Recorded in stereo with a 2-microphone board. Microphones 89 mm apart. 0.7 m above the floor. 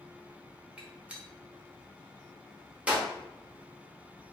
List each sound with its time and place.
0.8 s a gunshot: 10° right (ahead or behind), 0.6 m